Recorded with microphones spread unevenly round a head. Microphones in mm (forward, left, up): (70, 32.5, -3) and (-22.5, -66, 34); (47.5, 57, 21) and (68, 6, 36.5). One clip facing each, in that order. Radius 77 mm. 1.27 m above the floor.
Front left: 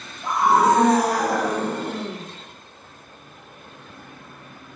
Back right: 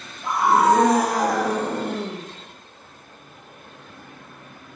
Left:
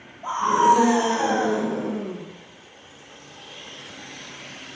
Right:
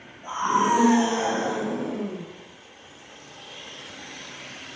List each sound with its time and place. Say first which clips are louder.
0.2 s a scream: even, left 4 dB; 135° left, 3.5 m; by 2.2 s straight behind, 1.9 m